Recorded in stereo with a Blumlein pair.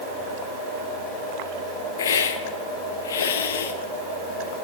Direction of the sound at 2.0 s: 65° left.